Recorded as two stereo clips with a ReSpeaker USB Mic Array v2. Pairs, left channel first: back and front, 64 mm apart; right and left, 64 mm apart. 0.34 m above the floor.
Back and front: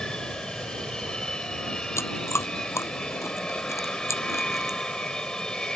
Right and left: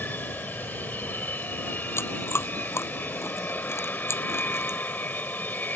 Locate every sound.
0.0 s an aircraft: 110° right
2.0 s chewing: 135° right